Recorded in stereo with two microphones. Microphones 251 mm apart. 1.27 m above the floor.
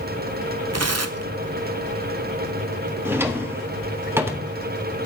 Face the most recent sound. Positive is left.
turn(degrees=-10)  # may be behind; listen again after turning